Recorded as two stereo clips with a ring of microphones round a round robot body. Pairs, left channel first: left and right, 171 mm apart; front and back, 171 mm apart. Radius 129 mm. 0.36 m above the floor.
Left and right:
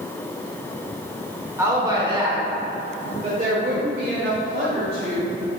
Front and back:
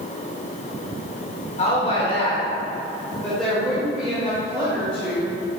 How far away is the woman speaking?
About 1.5 m.